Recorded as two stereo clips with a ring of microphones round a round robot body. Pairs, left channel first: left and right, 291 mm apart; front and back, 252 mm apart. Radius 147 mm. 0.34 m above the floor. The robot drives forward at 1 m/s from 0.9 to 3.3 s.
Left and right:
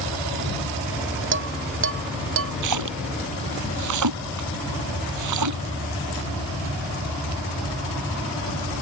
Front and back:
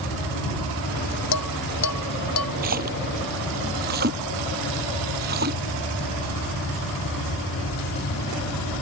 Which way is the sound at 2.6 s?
115° right.